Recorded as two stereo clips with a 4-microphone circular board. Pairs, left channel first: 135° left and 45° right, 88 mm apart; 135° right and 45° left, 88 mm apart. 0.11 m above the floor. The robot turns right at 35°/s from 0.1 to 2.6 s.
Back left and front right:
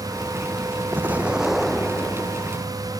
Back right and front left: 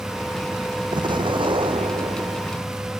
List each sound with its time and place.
0.9 s an explosion: 20° left; by 2.6 s 80° left